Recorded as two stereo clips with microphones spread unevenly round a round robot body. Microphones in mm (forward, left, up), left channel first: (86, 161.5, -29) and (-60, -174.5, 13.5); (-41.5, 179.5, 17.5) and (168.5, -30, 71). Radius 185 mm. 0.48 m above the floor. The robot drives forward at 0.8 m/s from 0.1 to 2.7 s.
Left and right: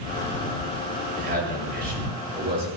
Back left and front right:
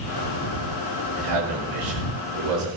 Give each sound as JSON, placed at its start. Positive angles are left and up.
{"t": 1.2, "sound": "a man speaking", "azimuth_deg": -45, "distance_m": 9.5}